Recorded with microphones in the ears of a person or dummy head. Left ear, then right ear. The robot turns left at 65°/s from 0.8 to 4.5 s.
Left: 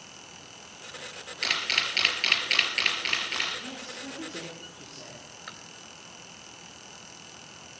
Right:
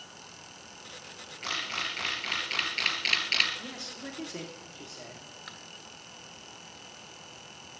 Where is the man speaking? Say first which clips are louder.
Left 1 dB; 45° right, 2.5 m; by 5.3 s 100° right, 2.5 m.